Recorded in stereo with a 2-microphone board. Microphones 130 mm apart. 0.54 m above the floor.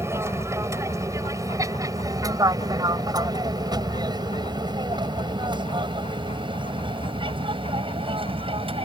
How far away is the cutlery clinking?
No cutlery clinking in this recording.